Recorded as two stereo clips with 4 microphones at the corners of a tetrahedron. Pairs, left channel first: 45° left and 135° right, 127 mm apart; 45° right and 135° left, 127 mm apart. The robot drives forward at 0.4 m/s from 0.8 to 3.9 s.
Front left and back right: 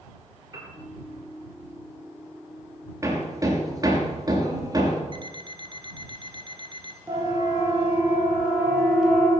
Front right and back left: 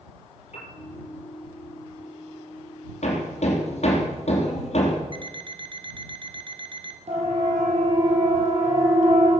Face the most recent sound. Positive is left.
turn(degrees=135)